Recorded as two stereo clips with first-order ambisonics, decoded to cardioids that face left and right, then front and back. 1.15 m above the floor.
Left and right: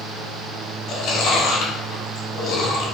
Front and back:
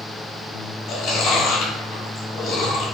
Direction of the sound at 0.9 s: 50° left.